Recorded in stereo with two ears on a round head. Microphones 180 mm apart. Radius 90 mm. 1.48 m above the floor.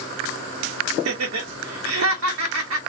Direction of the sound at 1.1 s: 75° right (ahead or behind).